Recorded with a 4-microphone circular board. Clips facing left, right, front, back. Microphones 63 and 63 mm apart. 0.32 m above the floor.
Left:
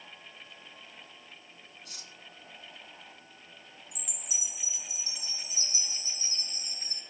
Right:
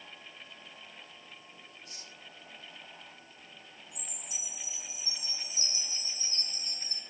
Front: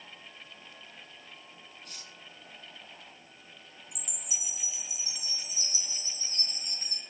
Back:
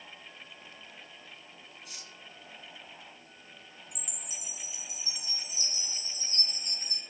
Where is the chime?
90° left, 4.5 m.